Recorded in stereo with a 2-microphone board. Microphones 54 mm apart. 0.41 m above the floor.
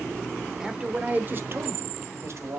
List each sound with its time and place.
0.6 s a man speaking: 15° right (ahead or behind), 0.8 m; by 2.6 s 60° right (ahead or behind), 1.7 m